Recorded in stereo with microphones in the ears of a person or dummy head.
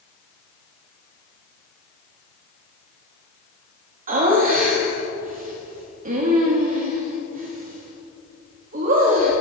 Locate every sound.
4.1 s laughter: 45° right (ahead or behind), 2.0 m